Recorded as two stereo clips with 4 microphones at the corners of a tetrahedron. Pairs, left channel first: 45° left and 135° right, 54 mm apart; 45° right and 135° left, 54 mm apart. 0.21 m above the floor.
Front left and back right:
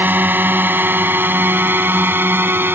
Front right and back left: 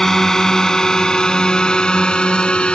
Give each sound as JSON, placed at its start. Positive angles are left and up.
{"t": 0.0, "sound": "a drone", "azimuth_deg": -125}